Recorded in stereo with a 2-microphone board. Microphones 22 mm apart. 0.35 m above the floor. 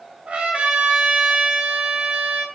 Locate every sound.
0.3 s a trumpet: 60° right (ahead or behind), 0.7 m